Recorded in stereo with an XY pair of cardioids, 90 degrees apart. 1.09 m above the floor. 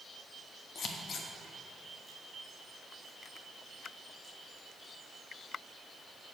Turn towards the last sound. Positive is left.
turn(degrees=65)